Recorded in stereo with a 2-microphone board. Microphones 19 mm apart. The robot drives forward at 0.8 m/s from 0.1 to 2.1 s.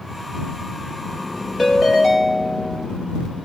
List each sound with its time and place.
1.6 s a ringtone: 5° right (ahead or behind), 2.5 m